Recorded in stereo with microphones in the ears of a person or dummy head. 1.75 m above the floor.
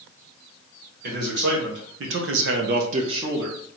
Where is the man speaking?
55° right (ahead or behind), 1.7 m; by 3.6 s 15° right (ahead or behind), 0.9 m.